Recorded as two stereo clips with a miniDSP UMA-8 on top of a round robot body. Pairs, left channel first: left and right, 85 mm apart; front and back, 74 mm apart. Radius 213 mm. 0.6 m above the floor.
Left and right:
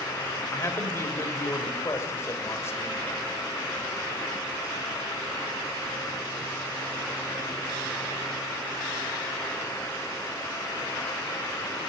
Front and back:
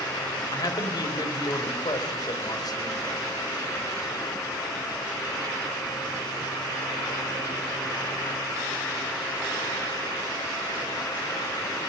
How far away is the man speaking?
About 3.5 m.